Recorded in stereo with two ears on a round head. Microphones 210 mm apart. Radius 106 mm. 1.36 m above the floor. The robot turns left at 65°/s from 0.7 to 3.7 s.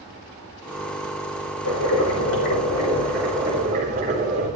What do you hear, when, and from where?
1.6 s boiling: 100° left, 4.5 m; by 4.5 s 35° right, 4.5 m